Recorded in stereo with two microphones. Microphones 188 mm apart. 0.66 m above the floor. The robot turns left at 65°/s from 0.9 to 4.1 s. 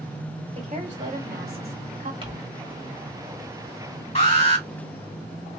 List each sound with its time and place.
0.6 s a woman speaking: 50° right, 2.5 m; by 2.1 s 130° right, 2.5 m
2.2 s crumpling: 30° right (ahead or behind), 1.4 m; by 2.3 s 25° right (ahead or behind), 1.4 m
4.2 s an alarm: 40° left (ahead or behind), 2.5 m